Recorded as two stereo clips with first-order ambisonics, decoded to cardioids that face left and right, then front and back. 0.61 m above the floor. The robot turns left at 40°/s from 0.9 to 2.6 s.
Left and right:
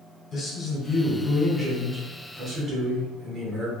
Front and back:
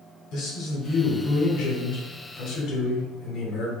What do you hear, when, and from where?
0.3 s a man speaking: 25° left, 1.3 m; by 3.7 s 40° right, 1.3 m